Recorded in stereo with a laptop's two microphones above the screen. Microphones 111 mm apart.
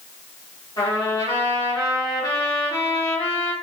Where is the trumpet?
30° left (ahead or behind), 0.9 m.